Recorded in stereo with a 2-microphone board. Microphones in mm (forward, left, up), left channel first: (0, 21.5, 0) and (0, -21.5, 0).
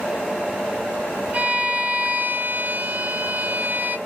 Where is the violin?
45° right (ahead or behind), 1.9 m.